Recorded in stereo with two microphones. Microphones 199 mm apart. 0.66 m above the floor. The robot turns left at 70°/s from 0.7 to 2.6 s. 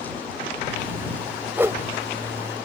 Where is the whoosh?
10° right (ahead or behind); by 1.8 s 20° right (ahead or behind).